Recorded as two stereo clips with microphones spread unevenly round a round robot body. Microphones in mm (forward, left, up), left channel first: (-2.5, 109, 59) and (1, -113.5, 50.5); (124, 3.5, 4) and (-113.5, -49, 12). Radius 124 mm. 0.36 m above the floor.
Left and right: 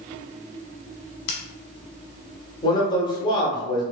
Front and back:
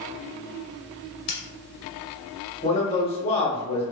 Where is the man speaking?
40° left, 0.9 m.